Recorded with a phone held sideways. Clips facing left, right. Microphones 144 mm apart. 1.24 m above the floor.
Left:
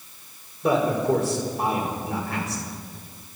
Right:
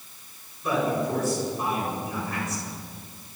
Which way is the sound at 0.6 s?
65° left (ahead or behind).